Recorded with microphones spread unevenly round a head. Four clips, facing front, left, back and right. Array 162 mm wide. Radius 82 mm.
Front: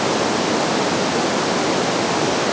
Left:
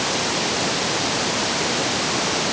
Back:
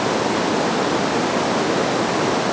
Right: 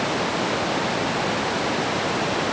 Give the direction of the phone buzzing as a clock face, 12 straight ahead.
I don't hear a phone buzzing.